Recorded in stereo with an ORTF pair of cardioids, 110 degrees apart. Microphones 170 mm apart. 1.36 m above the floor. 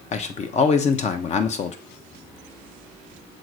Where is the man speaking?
40° left, 1.1 m.